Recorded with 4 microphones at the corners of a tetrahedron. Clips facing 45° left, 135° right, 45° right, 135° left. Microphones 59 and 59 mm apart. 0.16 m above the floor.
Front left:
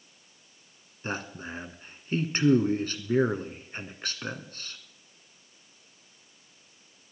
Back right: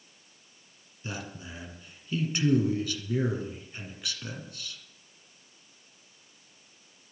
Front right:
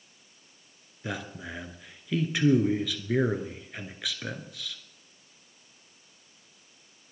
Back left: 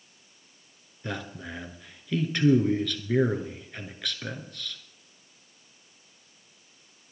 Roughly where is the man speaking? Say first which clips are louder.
Front left 5 dB, even; ahead left.